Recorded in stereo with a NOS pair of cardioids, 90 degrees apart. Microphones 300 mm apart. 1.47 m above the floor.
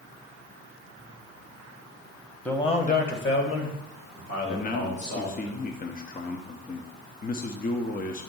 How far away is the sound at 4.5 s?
About 0.6 m.